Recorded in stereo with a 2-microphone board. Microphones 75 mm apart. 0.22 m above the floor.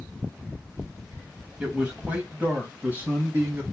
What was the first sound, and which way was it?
A man speaking, 15° right (ahead or behind).